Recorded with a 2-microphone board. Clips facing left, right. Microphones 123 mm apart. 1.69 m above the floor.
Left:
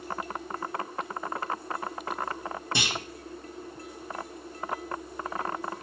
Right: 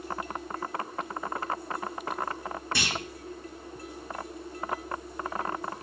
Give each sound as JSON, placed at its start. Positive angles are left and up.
{"t": 2.8, "sound": "a clunk", "side_deg": 20, "distance_m": 1.8}